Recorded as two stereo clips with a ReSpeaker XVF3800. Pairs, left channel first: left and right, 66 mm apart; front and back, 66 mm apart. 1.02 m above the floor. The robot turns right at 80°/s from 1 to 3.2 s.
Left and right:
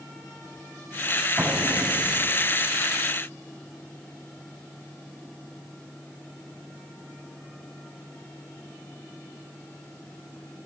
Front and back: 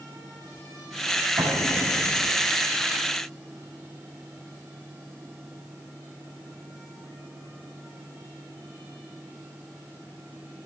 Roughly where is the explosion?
Behind.